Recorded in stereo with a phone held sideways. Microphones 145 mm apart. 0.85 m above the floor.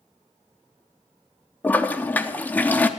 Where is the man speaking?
I don't hear a man speaking.